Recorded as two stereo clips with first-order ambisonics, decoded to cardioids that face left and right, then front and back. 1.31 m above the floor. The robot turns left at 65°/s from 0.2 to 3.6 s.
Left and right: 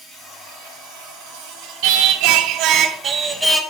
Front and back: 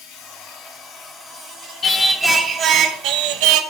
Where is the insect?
15° right, 1.4 m; by 3.7 s 125° left, 1.4 m.